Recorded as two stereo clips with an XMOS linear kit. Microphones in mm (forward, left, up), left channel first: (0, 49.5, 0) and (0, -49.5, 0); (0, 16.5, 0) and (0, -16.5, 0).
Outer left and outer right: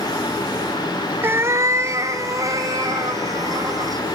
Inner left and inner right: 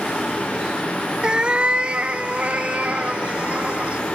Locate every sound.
1.2 s a cat meowing: 20° right (ahead or behind), 0.5 m; by 4.0 s 35° right (ahead or behind), 2 m